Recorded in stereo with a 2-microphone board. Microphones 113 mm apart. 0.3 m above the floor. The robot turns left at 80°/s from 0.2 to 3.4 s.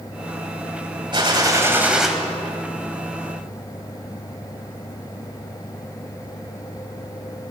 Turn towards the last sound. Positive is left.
turn(degrees=75)